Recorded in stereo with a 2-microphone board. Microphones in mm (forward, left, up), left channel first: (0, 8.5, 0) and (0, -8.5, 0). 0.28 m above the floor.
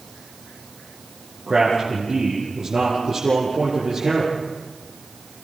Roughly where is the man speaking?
Right.